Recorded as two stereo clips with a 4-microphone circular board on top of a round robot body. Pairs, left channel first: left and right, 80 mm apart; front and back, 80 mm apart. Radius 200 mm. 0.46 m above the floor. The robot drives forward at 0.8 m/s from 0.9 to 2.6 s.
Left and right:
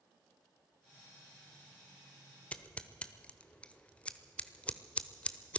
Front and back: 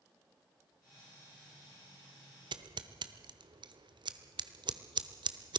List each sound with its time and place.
2.5 s scissors: 165° left, 0.9 m